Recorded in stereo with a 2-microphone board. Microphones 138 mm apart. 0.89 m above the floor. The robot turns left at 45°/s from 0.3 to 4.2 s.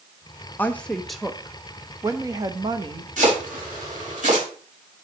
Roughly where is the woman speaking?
Ahead left.